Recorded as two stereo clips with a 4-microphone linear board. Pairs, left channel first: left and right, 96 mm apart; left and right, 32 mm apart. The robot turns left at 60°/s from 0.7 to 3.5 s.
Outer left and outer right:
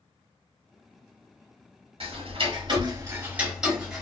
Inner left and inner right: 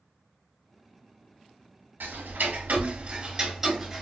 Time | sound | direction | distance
2.0 | ticking | 75° right (ahead or behind) | 1.2 m